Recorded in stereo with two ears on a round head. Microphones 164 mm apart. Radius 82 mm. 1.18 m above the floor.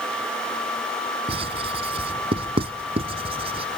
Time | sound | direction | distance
1.3 | writing | 30° right (ahead or behind) | ?